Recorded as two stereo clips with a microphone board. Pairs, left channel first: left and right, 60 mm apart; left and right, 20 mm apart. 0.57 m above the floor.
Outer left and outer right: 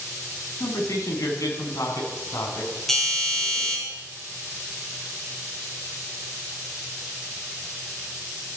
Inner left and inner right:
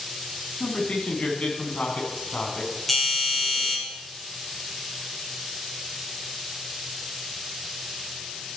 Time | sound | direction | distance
0.6 | a man speaking | 75° left (ahead or behind) | 4 m
2.9 | a doorbell | 10° left (ahead or behind) | 6.5 m